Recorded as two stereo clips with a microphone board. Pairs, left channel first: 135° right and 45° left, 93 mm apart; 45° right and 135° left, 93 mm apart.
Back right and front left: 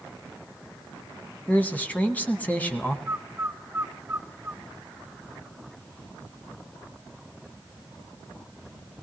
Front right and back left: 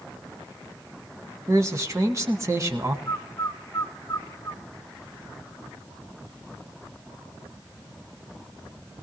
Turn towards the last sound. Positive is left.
turn(degrees=0)